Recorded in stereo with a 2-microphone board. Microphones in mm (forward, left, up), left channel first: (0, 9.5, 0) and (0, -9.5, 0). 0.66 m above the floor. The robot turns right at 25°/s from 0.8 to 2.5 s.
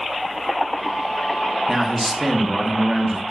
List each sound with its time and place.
1.7 s a man speaking: 20° right (ahead or behind), 0.9 m; by 3.2 s 30° right (ahead or behind), 0.9 m